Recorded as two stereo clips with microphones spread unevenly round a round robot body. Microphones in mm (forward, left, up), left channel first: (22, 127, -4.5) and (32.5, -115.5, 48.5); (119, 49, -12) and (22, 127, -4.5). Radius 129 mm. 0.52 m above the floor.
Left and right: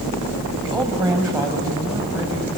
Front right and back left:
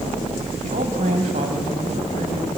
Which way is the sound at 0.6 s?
170° right.